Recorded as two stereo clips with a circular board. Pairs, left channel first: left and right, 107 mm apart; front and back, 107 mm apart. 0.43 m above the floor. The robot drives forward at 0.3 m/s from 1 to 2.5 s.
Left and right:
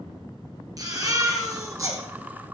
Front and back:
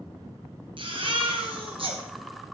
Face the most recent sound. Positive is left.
turn(degrees=-150)